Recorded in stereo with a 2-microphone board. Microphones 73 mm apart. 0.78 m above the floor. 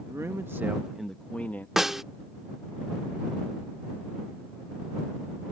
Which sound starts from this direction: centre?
A snare drum, at 1.8 s.